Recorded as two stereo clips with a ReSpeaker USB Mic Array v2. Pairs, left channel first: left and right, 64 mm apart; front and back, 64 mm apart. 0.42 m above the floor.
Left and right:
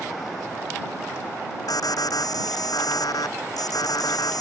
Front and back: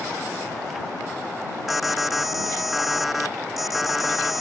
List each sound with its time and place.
1.7 s an alarm: 90° left